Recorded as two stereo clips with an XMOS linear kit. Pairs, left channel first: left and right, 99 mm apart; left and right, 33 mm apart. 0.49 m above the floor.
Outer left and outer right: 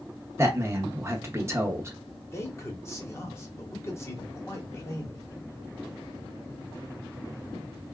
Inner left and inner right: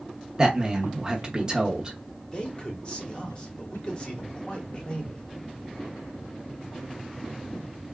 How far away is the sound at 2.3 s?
About 1.3 m.